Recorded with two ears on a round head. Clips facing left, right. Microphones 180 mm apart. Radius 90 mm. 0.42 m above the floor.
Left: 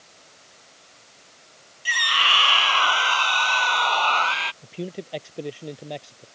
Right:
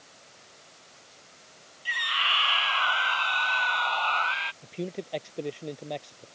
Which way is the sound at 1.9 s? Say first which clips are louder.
Left 7 dB; 60° left (ahead or behind).